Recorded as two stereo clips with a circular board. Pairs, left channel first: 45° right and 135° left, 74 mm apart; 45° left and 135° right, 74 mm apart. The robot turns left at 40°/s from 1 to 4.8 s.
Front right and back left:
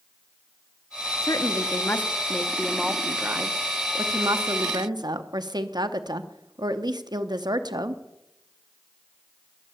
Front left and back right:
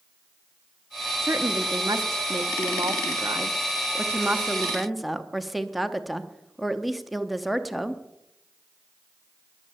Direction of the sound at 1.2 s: 80° right.